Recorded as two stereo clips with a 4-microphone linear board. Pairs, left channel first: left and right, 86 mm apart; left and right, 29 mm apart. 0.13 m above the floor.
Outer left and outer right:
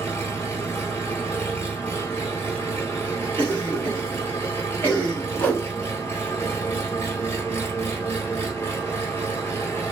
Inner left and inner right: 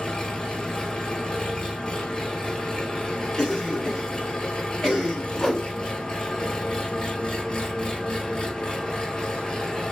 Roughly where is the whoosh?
Left.